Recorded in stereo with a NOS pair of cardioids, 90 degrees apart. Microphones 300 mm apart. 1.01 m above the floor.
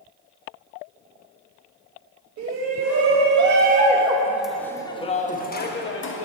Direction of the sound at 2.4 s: 60° right.